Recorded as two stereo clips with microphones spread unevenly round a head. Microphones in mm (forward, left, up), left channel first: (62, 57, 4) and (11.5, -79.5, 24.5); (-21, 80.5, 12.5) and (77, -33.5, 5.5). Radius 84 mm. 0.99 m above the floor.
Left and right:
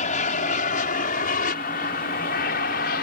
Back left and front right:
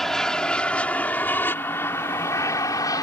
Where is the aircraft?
45° left; by 3.0 s 65° left.